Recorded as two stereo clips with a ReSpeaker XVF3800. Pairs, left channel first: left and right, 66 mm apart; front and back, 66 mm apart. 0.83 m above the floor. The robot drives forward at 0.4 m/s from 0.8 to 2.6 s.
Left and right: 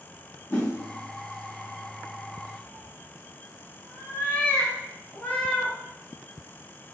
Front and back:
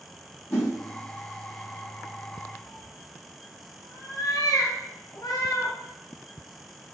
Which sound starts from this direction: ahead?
A cat meowing, at 2.6 s.